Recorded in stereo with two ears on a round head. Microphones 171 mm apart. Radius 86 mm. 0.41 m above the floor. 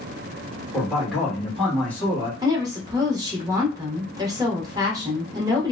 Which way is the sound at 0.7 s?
Centre (ahead or behind).